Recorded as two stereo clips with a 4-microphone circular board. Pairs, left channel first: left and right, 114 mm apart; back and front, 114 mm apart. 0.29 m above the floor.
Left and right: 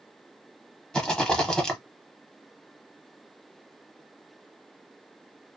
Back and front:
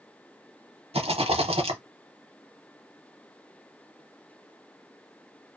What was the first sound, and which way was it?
A rattle, 5° left.